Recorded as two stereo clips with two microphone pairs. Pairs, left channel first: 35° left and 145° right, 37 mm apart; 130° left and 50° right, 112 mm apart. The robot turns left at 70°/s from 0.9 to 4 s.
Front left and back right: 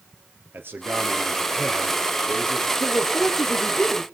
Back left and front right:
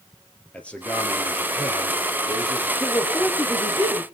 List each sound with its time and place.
0.5 s a man speaking: 150° right, 4 m; by 2.7 s 85° left, 4 m
2.8 s a woman speaking: 70° left, 4.5 m; by 4.0 s 15° right, 4.5 m